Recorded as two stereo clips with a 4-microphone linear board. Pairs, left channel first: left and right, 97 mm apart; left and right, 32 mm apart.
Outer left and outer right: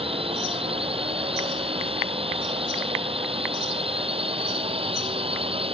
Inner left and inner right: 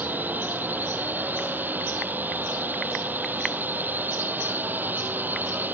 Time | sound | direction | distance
0.0 | a drone | 75° right (ahead or behind) | ?